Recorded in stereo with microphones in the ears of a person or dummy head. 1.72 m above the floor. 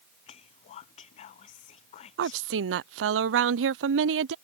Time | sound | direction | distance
0.3 | whispering | 40° left (ahead or behind) | ?
2.2 | a woman speaking | 70° right (ahead or behind) | ?